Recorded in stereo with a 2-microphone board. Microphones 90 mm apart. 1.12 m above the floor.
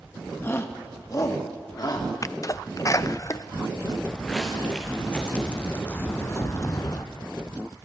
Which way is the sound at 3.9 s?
5° left (ahead or behind).